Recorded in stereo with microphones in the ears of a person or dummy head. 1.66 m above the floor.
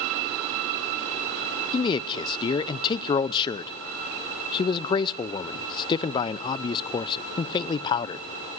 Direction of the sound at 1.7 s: 25° left (ahead or behind).